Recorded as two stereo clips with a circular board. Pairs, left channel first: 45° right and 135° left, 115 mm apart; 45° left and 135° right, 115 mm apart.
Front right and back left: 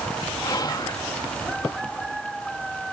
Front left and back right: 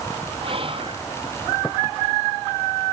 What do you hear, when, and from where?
0.4 s whispering: 100° right, 0.9 m